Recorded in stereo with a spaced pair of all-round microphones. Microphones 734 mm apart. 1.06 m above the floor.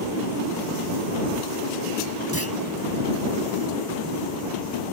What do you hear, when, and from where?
2.3 s a clunk: 20° right (ahead or behind)